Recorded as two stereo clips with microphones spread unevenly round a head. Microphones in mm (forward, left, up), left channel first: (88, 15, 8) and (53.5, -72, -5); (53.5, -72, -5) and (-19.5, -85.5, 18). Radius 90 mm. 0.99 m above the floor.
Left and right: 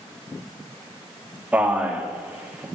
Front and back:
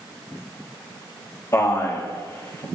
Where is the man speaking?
35° right, 2 m.